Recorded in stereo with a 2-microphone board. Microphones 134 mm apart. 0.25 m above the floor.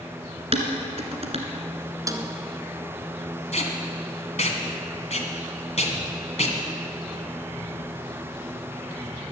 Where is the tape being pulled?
55° left (ahead or behind), 1.9 m.